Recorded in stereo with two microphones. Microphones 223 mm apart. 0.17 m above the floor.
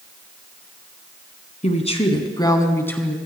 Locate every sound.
1.6 s a woman speaking: 30° left (ahead or behind), 1.8 m; by 3.1 s 5° left (ahead or behind), 1.6 m